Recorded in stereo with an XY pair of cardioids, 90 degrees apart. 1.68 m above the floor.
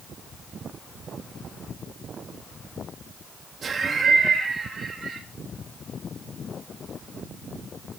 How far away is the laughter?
About 3.5 m.